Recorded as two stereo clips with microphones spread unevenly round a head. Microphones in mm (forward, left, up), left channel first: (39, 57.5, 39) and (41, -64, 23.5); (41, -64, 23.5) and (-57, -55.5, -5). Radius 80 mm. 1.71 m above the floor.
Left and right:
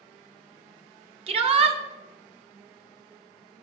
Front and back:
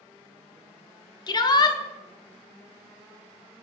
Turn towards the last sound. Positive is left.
turn(degrees=-45)